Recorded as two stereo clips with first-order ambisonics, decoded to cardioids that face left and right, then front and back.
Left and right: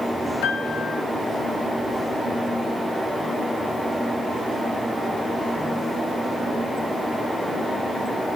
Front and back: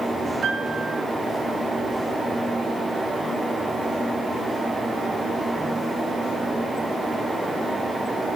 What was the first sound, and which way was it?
A piano, 105° left.